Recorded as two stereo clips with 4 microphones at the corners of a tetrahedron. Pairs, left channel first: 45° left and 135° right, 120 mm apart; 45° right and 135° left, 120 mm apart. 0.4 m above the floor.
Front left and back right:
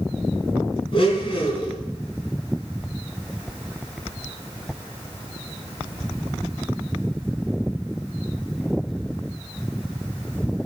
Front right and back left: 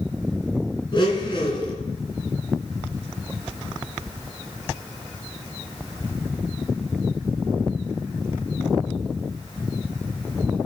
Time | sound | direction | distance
0.9 | a blender | straight ahead | 3 m